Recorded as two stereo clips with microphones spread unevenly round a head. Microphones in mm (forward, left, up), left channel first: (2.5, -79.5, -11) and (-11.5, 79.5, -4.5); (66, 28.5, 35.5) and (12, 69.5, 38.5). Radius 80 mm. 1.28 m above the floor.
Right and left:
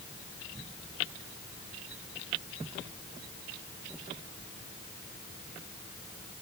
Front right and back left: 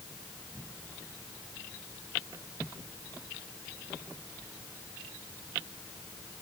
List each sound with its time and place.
Only background noise.